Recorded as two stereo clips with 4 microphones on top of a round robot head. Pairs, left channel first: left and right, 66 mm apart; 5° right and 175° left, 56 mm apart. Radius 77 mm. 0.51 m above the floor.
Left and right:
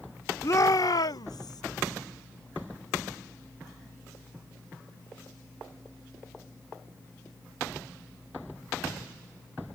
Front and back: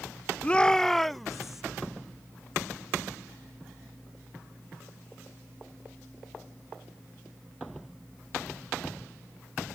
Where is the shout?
60° left; by 1.6 s 90° left.